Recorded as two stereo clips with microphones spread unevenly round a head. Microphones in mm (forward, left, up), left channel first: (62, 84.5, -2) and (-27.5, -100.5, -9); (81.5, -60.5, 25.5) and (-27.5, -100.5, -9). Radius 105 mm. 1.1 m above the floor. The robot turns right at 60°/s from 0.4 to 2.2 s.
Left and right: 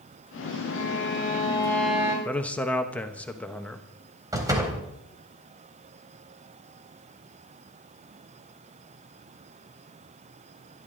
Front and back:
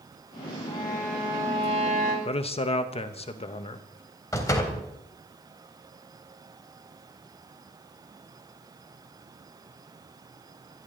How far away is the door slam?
About 3.5 m.